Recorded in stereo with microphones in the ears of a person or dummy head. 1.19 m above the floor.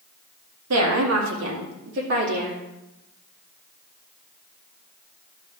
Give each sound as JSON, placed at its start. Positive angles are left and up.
{"t": 0.7, "sound": "a woman speaking", "side_deg": -80, "distance_m": 2.0}